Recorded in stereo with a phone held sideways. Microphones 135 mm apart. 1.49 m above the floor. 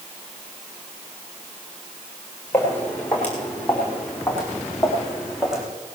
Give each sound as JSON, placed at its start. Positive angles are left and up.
{"t": 2.5, "sound": "footsteps", "side_deg": 15, "distance_m": 5.0}